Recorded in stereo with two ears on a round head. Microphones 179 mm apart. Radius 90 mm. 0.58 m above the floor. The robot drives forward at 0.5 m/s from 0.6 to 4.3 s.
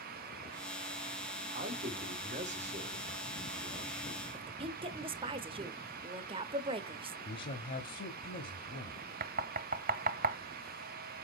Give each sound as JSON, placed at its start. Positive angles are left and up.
{"t": 1.5, "sound": "a man speaking", "side_deg": -45, "distance_m": 2.0}
{"t": 4.3, "sound": "a woman speaking", "side_deg": -25, "distance_m": 0.8}
{"t": 7.2, "sound": "a man speaking", "side_deg": 45, "distance_m": 1.0}
{"t": 9.2, "sound": "knocking", "side_deg": -45, "distance_m": 0.6}